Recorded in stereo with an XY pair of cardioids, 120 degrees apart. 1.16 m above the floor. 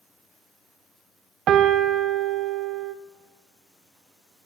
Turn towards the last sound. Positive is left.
turn(degrees=-60)